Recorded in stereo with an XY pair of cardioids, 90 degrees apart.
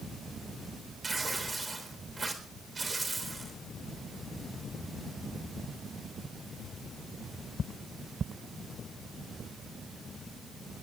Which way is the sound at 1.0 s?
30° right.